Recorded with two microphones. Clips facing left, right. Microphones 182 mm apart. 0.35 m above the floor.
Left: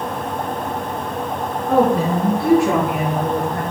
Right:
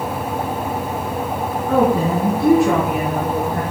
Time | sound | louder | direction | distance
1.7 | a woman speaking | even | 15° left (ahead or behind) | 4 m